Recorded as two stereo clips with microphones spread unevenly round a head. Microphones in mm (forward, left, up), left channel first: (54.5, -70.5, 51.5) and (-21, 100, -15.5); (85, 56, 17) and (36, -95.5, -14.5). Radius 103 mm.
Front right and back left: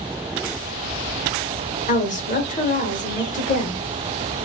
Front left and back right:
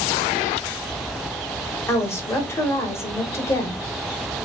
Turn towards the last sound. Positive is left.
turn(degrees=-10)